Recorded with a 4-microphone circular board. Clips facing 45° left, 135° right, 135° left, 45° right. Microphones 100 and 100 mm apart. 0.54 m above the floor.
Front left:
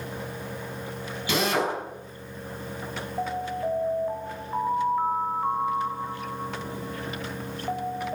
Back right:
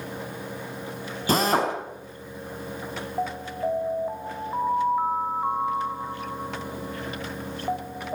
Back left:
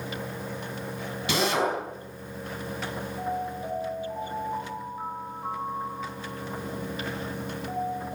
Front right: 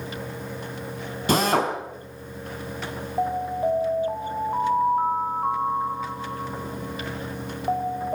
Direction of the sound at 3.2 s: 55° right.